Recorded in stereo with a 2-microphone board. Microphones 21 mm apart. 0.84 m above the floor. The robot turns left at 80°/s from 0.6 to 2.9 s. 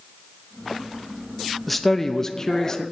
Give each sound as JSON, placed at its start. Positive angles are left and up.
{"t": 1.7, "sound": "a man speaking", "side_deg": 0, "distance_m": 0.7}